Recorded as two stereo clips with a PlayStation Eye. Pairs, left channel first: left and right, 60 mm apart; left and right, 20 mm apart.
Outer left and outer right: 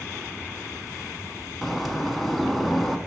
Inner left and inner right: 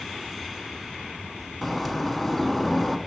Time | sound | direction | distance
1.6 | a bird | 5° left (ahead or behind) | 1.1 m